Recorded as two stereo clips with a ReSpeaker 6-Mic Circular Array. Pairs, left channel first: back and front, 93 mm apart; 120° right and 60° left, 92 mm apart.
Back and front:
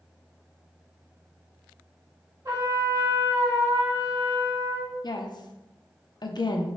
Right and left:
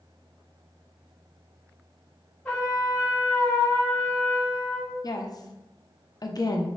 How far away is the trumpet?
About 1.9 m.